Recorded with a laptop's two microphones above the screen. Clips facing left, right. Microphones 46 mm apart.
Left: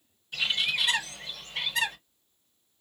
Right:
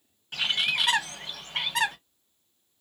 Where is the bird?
55° right (ahead or behind), 1.0 m.